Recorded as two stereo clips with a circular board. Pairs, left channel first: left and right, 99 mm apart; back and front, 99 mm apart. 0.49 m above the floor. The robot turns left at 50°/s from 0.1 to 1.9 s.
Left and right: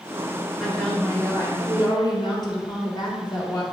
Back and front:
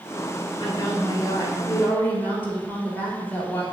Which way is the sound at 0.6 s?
Straight behind.